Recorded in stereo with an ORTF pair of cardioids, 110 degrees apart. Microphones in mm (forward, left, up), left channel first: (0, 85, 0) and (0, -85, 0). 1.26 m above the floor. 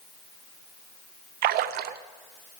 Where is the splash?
70° right, 0.6 m.